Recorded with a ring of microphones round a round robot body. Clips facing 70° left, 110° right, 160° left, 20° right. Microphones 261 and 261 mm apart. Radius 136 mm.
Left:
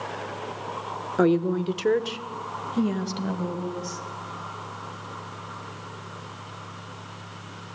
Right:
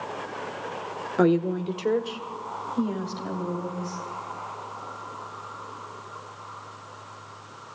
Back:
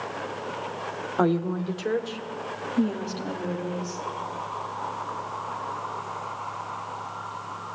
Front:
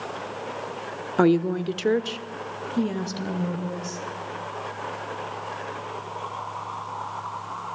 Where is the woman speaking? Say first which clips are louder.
Even, front 5 dB; 25° right, 1.1 m; by 4.0 s 30° left, 4 m.